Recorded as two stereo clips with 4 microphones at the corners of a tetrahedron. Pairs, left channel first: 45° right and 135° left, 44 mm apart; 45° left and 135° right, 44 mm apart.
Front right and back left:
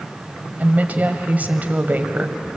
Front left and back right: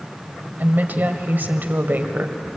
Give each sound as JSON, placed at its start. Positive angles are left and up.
{"t": 0.6, "sound": "a woman speaking", "azimuth_deg": -175, "distance_m": 1.9}